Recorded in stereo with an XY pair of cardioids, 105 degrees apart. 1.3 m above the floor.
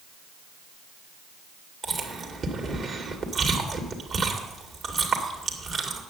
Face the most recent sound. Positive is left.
turn(degrees=-50)